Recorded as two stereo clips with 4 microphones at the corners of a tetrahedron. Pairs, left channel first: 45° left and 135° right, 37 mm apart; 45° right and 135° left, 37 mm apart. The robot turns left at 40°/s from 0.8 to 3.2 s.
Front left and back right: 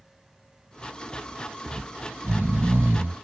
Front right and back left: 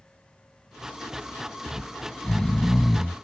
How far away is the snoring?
About 0.8 m.